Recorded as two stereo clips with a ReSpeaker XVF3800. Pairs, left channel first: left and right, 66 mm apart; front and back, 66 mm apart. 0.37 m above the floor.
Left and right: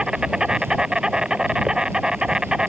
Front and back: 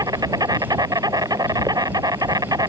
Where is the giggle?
No giggle in this recording.